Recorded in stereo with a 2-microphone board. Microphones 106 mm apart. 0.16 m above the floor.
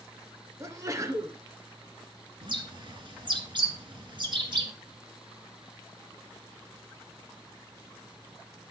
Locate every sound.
0.6 s a sneeze: 30° right (ahead or behind), 1.7 m
2.4 s a bird: 50° right (ahead or behind), 2.5 m